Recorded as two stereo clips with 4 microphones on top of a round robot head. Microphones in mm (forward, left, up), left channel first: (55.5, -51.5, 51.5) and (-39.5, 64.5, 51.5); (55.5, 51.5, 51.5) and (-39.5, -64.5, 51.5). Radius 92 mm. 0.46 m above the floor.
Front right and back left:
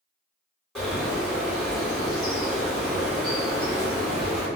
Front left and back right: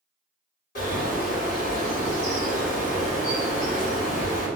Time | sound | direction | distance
0.8 | a bird | 40° left | 2.0 m